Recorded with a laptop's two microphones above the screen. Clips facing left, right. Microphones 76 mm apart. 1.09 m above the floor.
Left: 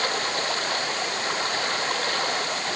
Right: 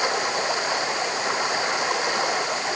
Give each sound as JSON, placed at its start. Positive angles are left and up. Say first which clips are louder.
{"t": 0.0, "sound": "running water", "louder": "right 3 dB", "side_deg": -15}